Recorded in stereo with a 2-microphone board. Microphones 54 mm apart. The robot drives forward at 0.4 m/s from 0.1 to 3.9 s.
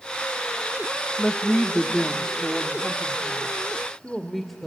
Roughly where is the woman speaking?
Centre.